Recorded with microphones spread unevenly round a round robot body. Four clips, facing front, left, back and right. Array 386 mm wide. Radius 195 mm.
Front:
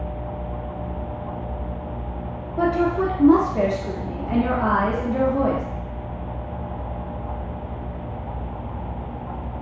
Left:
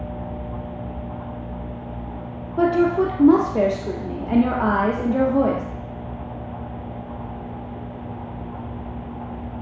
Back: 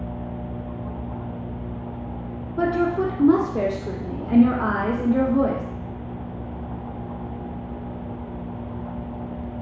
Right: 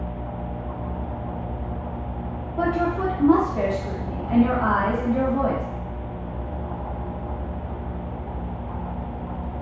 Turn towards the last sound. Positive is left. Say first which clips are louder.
# left 5 dB, front 1 dB
turn(degrees=110)